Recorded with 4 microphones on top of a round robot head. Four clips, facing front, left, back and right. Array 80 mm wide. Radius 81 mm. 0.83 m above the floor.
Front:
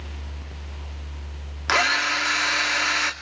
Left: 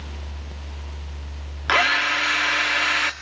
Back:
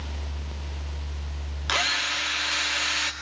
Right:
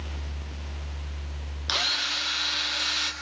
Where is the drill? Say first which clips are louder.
Left 12 dB, front 6 dB; 60° left, 2.5 m.